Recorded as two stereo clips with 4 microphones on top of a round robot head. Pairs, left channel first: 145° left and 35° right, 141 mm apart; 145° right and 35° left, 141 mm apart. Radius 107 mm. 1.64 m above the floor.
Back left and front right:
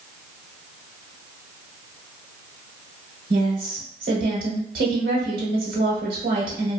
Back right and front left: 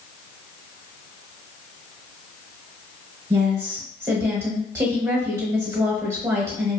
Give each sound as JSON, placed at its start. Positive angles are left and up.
{"t": 3.3, "sound": "a woman speaking", "azimuth_deg": -35, "distance_m": 1.1}